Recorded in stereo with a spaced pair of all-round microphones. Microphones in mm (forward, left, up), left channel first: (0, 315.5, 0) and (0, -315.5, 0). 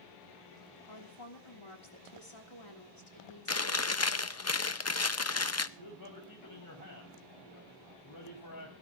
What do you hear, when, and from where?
0.9 s a woman speaking: 45° left (ahead or behind), 3 m
3.5 s chewing: 25° left (ahead or behind), 0.6 m
5.8 s a man speaking: 35° left (ahead or behind), 4.5 m